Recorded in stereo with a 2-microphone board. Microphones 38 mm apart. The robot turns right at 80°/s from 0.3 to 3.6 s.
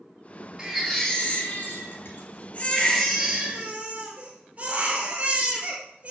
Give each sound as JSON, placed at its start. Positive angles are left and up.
{"t": 0.6, "sound": "a baby crying", "azimuth_deg": -25, "distance_m": 1.8}